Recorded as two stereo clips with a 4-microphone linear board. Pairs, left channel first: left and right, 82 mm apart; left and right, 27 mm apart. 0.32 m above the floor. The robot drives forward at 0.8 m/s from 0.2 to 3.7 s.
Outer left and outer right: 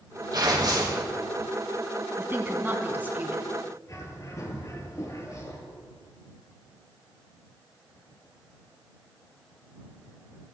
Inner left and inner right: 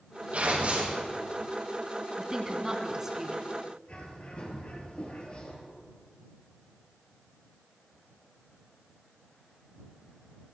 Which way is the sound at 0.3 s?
55° right (ahead or behind).